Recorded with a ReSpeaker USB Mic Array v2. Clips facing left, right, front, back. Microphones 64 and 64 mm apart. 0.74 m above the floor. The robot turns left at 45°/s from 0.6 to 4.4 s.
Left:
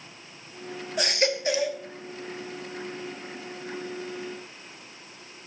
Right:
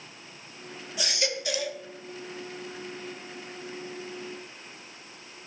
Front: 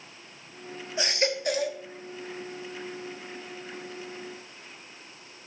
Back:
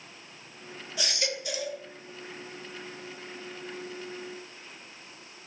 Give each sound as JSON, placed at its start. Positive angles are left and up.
{"t": 1.0, "sound": "a baby crying", "azimuth_deg": 60, "distance_m": 0.9}